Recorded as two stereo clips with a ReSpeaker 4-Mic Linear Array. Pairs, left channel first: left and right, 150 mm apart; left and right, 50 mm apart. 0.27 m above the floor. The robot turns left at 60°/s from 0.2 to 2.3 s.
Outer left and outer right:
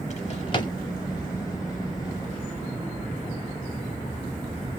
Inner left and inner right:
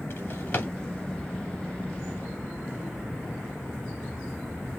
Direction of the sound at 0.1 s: 50° left (ahead or behind).